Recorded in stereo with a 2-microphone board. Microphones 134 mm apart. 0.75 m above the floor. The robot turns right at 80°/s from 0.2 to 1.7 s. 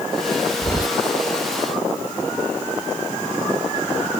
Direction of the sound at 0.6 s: 30° left (ahead or behind).